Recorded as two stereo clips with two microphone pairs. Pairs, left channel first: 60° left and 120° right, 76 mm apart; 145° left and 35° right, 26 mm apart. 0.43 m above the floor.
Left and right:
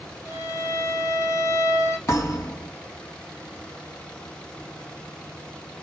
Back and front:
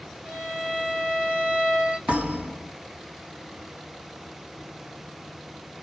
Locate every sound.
0.2 s a violin: 5° left, 3 m
2.1 s a thud: straight ahead, 3 m